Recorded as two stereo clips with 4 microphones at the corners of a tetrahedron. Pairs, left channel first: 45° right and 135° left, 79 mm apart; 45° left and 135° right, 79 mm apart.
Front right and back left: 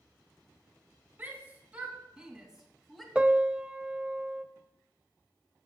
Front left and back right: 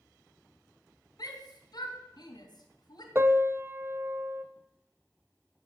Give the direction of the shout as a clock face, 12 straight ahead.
10 o'clock.